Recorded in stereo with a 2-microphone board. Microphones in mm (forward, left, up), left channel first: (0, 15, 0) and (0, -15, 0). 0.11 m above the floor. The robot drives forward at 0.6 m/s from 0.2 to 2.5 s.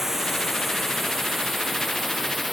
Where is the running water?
15° right (ahead or behind); by 2.5 s 10° right (ahead or behind).